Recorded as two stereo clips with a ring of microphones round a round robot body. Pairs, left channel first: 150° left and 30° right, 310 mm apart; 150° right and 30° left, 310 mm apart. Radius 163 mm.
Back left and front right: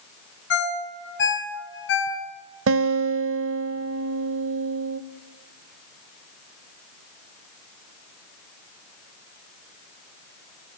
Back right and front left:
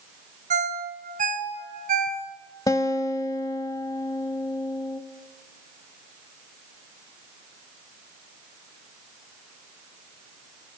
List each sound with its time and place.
0.5 s a ringtone: 95° left, 3 m
2.7 s a guitar: 75° right, 0.7 m